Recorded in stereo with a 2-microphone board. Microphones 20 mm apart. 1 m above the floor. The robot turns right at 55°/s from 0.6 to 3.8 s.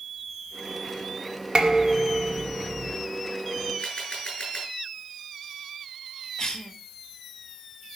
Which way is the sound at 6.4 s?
30° left (ahead or behind).